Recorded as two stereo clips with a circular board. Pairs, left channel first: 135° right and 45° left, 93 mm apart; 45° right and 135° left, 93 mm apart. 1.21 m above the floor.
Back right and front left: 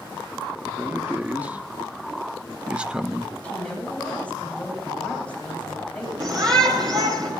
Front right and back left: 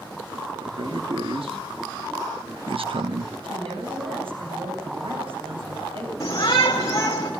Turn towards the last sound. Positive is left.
turn(degrees=5)